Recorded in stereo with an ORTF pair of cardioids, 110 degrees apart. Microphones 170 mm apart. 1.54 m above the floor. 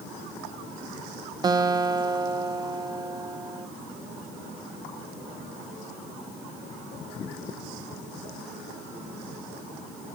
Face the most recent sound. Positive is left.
turn(degrees=-25)